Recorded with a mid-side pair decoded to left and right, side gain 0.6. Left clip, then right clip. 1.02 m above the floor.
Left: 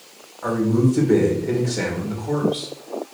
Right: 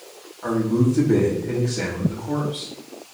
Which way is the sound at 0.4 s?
25° left.